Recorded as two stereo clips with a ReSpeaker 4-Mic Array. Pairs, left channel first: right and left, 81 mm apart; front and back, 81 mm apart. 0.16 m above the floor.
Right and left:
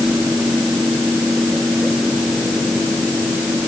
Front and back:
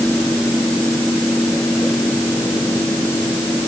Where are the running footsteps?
No running footsteps in this recording.